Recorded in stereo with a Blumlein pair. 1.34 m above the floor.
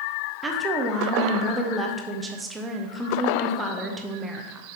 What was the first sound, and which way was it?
A woman speaking, 15° right.